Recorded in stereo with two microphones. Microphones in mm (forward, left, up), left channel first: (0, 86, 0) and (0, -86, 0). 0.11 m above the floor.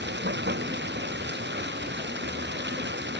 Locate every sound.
0.0 s running water: 75° right (ahead or behind)